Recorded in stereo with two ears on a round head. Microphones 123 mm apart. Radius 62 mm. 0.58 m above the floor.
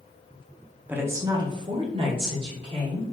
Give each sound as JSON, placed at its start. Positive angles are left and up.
{"t": 0.9, "sound": "a woman speaking", "side_deg": -10, "distance_m": 0.6}